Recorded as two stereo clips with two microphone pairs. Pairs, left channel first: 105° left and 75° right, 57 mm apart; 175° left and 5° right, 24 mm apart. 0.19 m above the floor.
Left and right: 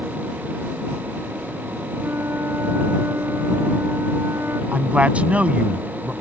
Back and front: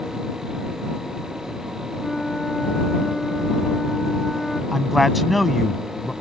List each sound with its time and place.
2.0 s a flute: 115° right
4.7 s a man speaking: 95° right